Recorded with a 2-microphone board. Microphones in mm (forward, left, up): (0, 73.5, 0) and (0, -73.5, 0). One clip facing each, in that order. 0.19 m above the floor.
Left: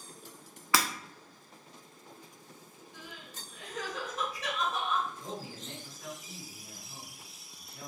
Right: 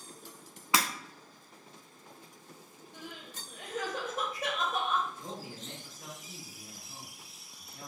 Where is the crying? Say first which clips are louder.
Right 3 dB; 50° right (ahead or behind), 1.7 m.